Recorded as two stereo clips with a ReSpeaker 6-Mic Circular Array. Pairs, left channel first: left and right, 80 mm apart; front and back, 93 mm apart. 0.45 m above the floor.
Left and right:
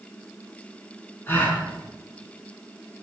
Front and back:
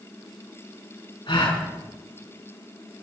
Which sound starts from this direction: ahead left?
A gasp, at 1.3 s.